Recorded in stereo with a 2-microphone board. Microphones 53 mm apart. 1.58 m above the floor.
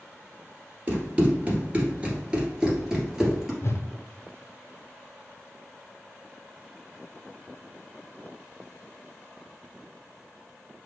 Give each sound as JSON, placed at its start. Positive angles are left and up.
{"t": 0.9, "sound": "running footsteps", "side_deg": -25, "distance_m": 1.7}
{"t": 3.6, "sound": "a whoosh", "side_deg": 55, "distance_m": 0.5}